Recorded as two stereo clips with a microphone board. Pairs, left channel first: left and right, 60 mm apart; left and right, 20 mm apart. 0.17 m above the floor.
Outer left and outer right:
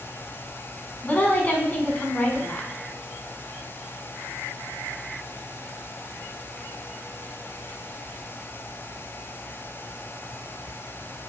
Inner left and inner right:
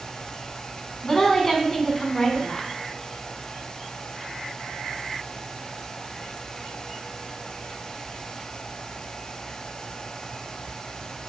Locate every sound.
1.0 s a woman speaking: 25° left (ahead or behind), 1.2 m